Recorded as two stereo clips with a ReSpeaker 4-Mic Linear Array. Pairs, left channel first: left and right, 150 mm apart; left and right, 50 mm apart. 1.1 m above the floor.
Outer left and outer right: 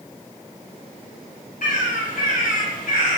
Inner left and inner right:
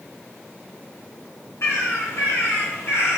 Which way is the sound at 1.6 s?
70° left (ahead or behind).